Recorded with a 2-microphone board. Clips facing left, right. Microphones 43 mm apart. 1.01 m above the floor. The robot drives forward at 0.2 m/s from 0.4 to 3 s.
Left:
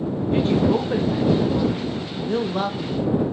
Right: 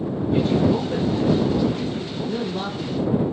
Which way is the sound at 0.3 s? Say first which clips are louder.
Even; 35° left (ahead or behind).